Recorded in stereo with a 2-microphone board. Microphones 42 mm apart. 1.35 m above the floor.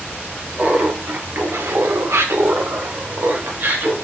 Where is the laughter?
40° right (ahead or behind), 1.7 m; by 3.9 s 45° right (ahead or behind), 2 m.